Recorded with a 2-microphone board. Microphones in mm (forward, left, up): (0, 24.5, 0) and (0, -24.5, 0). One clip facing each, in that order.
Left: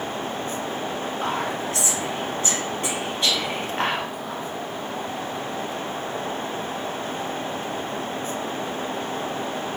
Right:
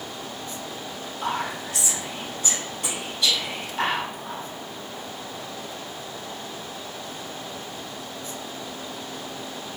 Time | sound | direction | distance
1.2 | whispering | 35° left (ahead or behind) | 1.4 m